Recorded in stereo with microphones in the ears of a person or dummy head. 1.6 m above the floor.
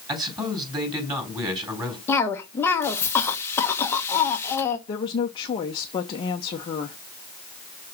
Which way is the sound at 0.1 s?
25° right (ahead or behind).